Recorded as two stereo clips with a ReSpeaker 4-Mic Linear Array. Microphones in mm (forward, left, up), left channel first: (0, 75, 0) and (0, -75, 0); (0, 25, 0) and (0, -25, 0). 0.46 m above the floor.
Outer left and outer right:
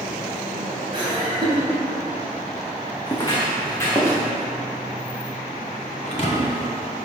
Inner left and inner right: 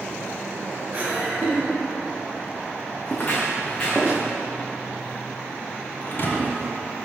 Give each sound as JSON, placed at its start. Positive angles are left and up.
{"t": 0.9, "sound": "laughter", "side_deg": -35, "distance_m": 2.5}
{"t": 3.1, "sound": "footsteps", "side_deg": 30, "distance_m": 1.6}
{"t": 6.0, "sound": "a thud", "side_deg": 50, "distance_m": 1.1}